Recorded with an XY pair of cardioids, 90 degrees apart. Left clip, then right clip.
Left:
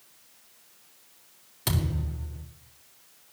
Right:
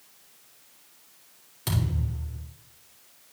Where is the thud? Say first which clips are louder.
Left 1 dB; 40° left, 2.5 m.